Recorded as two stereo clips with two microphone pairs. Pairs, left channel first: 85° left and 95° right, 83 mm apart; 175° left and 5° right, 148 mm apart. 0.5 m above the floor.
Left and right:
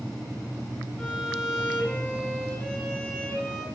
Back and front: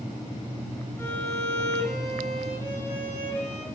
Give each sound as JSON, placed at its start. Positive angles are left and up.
{"t": 1.0, "sound": "a violin", "azimuth_deg": 135, "distance_m": 1.1}